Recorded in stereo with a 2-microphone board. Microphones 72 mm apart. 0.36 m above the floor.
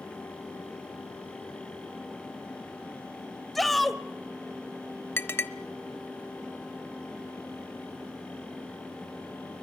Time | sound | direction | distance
3.5 | a shout | centre (ahead or behind) | 1.4 m
5.2 | a clink | 30° left (ahead or behind) | 0.9 m